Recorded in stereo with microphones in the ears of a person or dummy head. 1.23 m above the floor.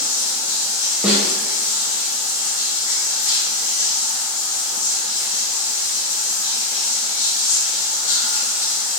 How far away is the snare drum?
About 0.6 m.